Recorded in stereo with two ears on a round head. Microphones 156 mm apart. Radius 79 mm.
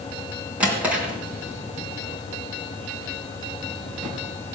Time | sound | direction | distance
0.6 | a drawer | 10° right (ahead or behind) | 3 m